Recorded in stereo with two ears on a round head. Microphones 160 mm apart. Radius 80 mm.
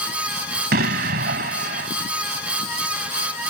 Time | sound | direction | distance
0.7 | an explosion | 55° right (ahead or behind) | ?